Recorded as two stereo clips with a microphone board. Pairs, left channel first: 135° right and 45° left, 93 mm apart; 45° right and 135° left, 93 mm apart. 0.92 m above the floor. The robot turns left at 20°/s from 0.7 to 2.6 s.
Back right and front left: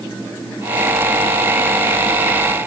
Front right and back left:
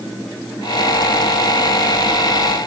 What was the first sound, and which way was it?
Only background noise.